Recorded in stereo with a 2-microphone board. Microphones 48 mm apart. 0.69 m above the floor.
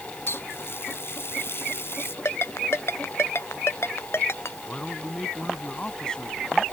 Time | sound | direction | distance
0.3 | a running tap | 60° left (ahead or behind) | ?
2.2 | a ringtone | 70° left (ahead or behind) | ?
4.7 | a man speaking | 15° left (ahead or behind) | ?